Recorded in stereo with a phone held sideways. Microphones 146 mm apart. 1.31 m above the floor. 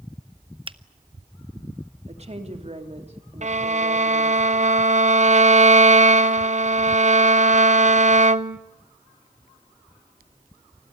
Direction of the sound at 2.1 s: 45° right (ahead or behind).